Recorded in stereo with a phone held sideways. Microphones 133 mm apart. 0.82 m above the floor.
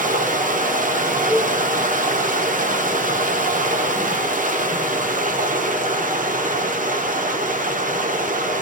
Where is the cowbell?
40° right (ahead or behind), 1.2 m.